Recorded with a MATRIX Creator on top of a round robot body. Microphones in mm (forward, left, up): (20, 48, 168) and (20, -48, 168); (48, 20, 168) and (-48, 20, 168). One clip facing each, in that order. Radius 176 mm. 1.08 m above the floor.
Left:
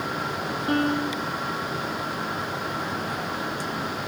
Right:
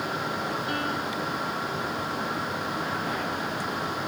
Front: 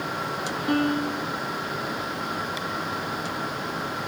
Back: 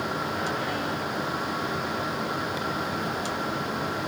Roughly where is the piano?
Ahead left.